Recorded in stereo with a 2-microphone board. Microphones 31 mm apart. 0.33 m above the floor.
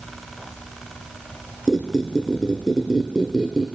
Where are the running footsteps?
I don't hear running footsteps.